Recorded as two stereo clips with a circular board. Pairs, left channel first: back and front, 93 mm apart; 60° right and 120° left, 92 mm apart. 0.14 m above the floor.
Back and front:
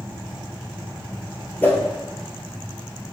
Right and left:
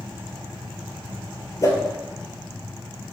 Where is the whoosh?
110° right, 1.1 m.